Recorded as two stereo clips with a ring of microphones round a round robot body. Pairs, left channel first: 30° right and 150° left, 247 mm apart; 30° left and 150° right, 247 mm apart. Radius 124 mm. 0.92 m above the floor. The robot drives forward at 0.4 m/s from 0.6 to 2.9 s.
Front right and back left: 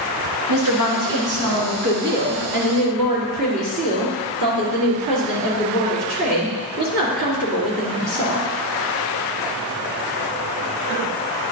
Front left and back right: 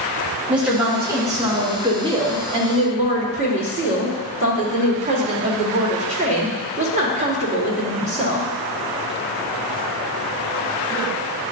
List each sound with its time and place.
0.5 s a woman speaking: 125° left, 1.5 m; by 8.5 s 145° left, 2 m